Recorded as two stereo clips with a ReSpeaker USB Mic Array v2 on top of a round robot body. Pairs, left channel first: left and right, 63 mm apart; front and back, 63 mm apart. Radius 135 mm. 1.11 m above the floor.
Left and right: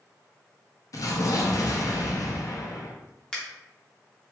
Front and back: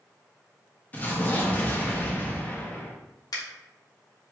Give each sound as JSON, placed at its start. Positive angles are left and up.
{"t": 0.9, "sound": "an explosion", "azimuth_deg": 65, "distance_m": 0.6}
{"t": 3.3, "sound": "a finger snap", "azimuth_deg": 15, "distance_m": 0.9}